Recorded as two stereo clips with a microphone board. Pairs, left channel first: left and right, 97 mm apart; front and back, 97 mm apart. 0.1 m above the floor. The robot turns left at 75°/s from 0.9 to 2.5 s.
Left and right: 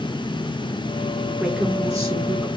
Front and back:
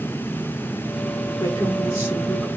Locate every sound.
1.4 s a woman speaking: 5° right, 2.5 m; by 2.5 s 85° right, 2.5 m